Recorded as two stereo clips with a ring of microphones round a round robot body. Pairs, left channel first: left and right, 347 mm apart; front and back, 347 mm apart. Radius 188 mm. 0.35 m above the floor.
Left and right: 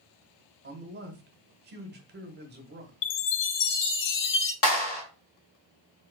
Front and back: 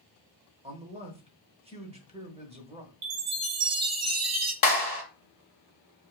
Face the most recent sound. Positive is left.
turn(degrees=55)